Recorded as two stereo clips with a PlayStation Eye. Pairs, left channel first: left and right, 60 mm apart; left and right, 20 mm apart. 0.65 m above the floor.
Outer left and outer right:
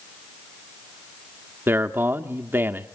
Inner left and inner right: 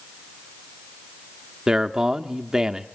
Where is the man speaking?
35° right (ahead or behind), 0.8 m.